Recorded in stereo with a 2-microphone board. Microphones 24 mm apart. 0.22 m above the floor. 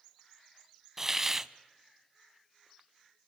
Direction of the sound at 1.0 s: 20° right (ahead or behind).